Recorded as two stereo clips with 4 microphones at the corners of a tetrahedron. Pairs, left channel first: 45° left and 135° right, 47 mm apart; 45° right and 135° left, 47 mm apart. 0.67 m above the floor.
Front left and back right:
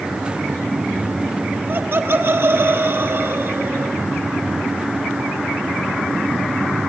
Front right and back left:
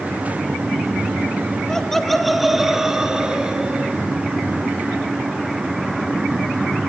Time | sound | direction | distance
1.7 | laughter | 120° right | 1.2 m